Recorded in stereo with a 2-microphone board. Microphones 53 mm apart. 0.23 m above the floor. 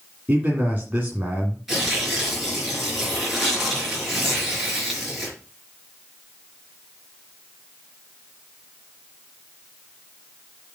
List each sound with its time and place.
0.3 s a man speaking: 30° right (ahead or behind), 2 m
1.7 s tearing paper: 5° right (ahead or behind), 4.5 m